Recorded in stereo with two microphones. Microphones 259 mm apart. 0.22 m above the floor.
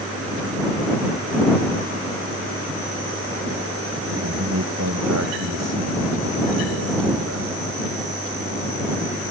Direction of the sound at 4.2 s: 80° right.